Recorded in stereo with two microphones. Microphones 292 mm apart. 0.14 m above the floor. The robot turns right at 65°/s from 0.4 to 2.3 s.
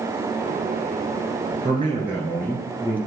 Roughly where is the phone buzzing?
No phone buzzing in this recording.